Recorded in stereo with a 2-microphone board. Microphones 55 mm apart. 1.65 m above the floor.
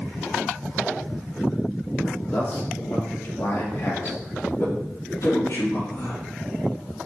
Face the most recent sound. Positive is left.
turn(degrees=75)  # may be behind; listen again after turning